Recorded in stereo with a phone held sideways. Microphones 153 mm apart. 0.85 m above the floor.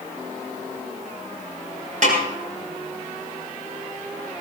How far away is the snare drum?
About 7.5 m.